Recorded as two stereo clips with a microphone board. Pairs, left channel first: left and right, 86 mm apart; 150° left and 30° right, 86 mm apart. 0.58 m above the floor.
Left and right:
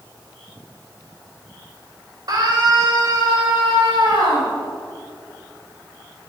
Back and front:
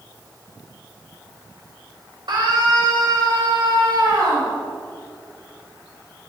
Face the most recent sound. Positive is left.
turn(degrees=-60)